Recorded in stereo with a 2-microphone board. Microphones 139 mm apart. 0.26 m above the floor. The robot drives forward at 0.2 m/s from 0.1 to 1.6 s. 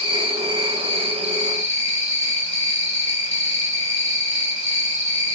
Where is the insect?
45° right (ahead or behind), 0.9 m; by 5.4 s 55° right (ahead or behind), 0.7 m.